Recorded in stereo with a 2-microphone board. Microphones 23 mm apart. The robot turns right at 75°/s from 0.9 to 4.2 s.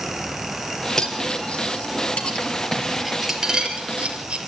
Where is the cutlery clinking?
20° left (ahead or behind), 3.5 m; by 4.4 s 80° right, 3.5 m.